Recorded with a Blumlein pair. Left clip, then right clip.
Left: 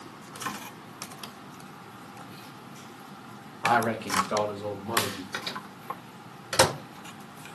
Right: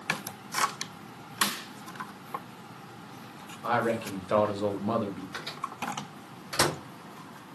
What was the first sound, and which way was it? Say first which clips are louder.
A man speaking: left 3 dB; 20° left.